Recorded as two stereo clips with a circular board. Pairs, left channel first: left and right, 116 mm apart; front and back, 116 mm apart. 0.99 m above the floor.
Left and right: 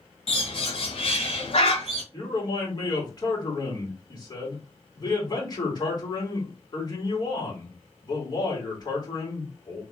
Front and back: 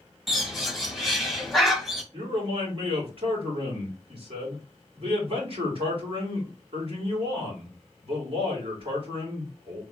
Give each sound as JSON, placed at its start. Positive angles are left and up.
{"t": 0.3, "sound": "a bird", "azimuth_deg": 90, "distance_m": 1.3}
{"t": 2.1, "sound": "a man speaking", "azimuth_deg": 145, "distance_m": 3.0}